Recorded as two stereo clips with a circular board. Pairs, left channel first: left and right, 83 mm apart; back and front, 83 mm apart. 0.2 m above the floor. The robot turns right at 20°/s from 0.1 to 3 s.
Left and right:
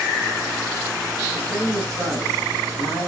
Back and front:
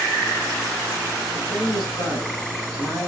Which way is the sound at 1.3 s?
30° right.